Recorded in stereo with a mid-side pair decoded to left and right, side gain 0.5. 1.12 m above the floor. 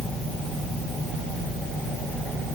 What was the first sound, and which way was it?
Only background noise.